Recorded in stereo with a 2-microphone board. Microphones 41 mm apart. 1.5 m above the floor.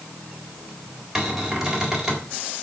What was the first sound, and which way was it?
A cupboard door, 10° right (ahead or behind).